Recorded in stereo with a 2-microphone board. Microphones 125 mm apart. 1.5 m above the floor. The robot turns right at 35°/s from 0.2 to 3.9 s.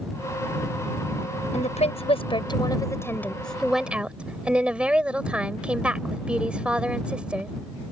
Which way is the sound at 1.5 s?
105° left.